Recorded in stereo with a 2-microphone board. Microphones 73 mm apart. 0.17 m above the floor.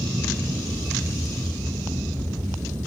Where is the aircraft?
70° right (ahead or behind).